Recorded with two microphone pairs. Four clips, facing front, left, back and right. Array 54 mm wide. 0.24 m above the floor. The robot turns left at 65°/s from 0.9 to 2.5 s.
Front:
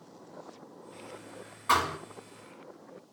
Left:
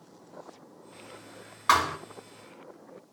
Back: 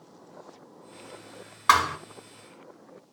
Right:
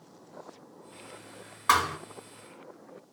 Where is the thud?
165° left, 1.0 m; by 2.0 s 145° left, 1.0 m.